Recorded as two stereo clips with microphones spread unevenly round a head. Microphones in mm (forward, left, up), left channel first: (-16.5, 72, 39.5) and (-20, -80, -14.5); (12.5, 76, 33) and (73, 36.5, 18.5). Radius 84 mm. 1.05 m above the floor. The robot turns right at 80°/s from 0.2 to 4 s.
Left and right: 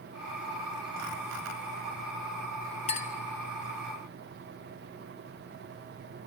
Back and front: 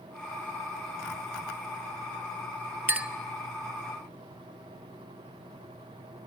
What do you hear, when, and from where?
2.9 s a clink: 30° left, 0.5 m; by 3.1 s 45° left, 0.5 m